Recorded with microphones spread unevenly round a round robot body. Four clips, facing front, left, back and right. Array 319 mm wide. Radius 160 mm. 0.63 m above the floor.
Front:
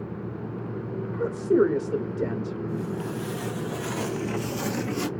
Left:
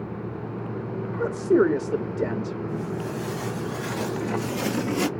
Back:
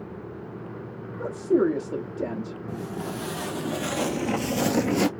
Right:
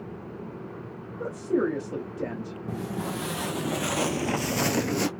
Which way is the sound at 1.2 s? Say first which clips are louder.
Left 6 dB, front 1 dB; 120° left.